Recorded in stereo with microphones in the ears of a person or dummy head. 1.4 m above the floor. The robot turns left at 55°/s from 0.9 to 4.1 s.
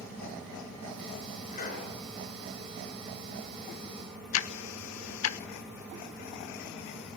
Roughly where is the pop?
Left.